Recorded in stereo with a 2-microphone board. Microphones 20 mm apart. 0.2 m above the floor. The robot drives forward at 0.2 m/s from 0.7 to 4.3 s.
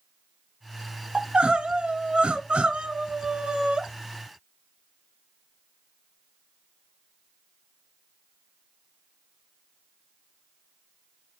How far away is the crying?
About 0.6 m.